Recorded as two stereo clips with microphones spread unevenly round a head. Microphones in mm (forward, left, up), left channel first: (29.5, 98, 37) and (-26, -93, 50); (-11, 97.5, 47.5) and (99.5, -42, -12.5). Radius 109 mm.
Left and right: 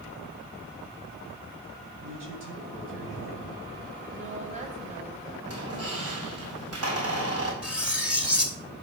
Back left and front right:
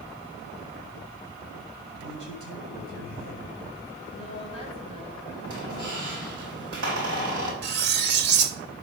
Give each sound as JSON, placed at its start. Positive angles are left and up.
{"t": 2.0, "sound": "a man speaking", "azimuth_deg": -85, "distance_m": 5.5}
{"t": 4.1, "sound": "a woman speaking", "azimuth_deg": -160, "distance_m": 2.0}
{"t": 5.4, "sound": "a squeak", "azimuth_deg": -100, "distance_m": 5.0}
{"t": 7.6, "sound": "cutlery clinking", "azimuth_deg": -20, "distance_m": 1.1}